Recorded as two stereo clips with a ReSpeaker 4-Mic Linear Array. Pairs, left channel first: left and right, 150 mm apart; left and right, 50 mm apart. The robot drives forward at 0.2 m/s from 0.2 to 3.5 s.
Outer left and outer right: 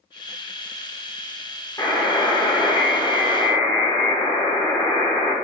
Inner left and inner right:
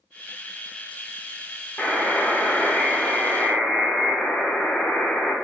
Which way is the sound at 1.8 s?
25° left (ahead or behind).